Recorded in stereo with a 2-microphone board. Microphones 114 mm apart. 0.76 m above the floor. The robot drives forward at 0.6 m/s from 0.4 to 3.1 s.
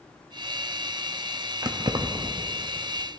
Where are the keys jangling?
35° right (ahead or behind), 0.7 m; by 2.3 s 45° right (ahead or behind), 0.6 m.